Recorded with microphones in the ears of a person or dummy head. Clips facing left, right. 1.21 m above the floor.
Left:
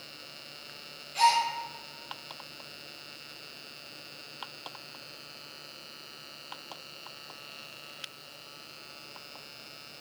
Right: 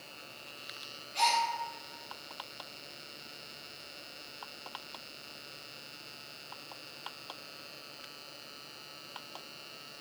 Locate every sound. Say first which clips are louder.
1.1 s a gasp: left 5 dB; 15° left (ahead or behind), 1.0 m